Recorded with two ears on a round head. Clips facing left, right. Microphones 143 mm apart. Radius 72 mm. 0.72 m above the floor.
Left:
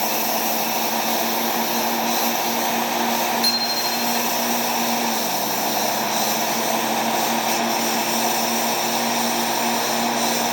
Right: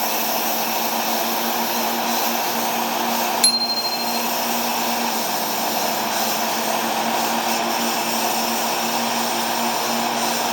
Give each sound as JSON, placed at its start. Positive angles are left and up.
{"t": 0.0, "sound": "a lawn mower", "side_deg": 0}
{"t": 3.4, "sound": "a bicycle bell", "side_deg": -65}